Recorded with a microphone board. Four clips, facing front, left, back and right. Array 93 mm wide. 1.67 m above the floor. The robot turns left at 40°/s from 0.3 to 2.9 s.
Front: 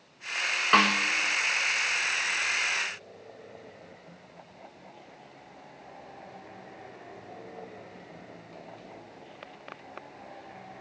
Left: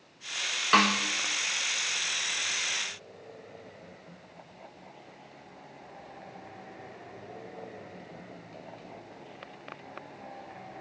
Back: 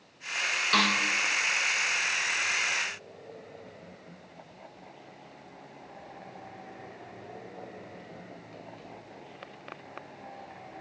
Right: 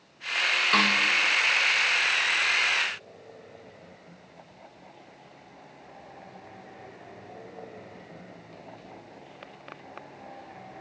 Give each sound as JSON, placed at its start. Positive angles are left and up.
{"t": 0.7, "sound": "a snare drum", "azimuth_deg": 30, "distance_m": 1.0}